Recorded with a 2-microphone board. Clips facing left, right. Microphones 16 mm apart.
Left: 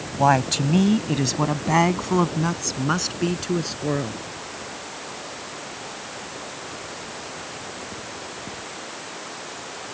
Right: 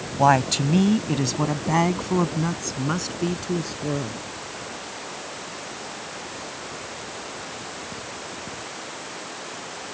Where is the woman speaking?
5° right (ahead or behind); by 4.2 s 35° left (ahead or behind).